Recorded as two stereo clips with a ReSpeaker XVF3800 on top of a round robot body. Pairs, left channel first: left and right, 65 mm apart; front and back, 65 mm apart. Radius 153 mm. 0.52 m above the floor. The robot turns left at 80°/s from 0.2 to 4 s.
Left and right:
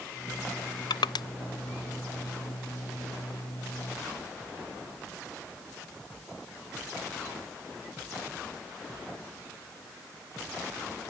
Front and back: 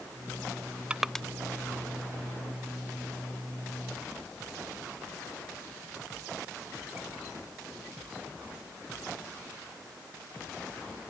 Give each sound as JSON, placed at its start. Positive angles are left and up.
{"t": 0.9, "sound": "crushing", "azimuth_deg": 105}